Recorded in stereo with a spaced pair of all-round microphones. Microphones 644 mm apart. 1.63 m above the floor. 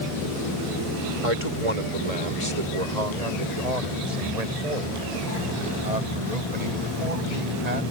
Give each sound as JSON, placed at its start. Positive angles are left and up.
{"t": 1.2, "sound": "a man speaking", "side_deg": -60}